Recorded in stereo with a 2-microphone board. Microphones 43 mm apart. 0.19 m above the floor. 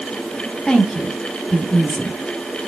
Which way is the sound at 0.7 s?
20° left (ahead or behind).